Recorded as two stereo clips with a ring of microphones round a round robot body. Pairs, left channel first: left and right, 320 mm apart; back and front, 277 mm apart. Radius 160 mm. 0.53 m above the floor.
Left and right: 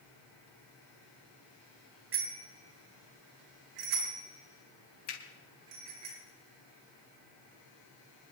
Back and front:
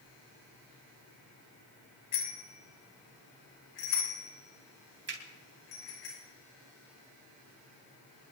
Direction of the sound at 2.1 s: 140° right.